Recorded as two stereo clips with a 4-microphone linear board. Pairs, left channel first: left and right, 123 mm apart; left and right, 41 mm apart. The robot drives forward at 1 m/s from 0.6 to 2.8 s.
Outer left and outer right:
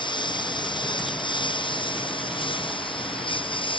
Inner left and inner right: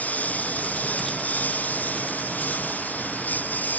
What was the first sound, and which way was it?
A lawn mower, 40° left (ahead or behind).